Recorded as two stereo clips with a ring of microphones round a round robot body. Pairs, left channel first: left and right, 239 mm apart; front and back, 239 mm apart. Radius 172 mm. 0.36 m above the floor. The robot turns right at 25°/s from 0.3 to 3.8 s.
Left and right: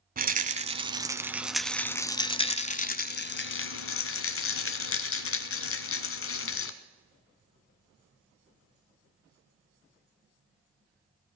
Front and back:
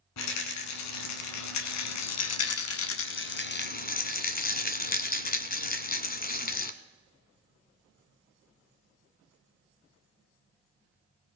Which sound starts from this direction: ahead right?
A rattle, at 0.2 s.